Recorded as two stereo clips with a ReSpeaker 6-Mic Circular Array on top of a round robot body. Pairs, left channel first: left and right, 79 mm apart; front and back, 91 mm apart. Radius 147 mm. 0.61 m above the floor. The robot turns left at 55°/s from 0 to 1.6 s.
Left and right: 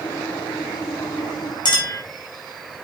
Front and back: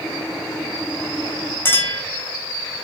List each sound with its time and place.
1.6 s a clink: 65° left, 2.5 m